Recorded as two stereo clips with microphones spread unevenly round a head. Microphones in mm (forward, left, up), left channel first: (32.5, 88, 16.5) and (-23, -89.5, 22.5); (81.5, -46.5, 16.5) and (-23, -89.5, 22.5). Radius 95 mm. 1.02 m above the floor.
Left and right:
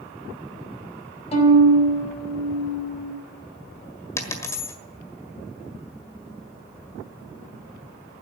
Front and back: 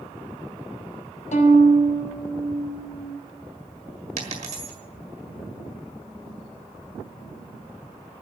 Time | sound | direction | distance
1.3 | a violin | 15° left | 5 m
4.2 | a dropped coin | 150° left | 1.6 m